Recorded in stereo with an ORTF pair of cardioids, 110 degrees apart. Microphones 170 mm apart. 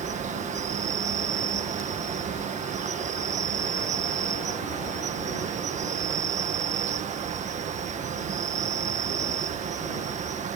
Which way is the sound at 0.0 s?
45° right.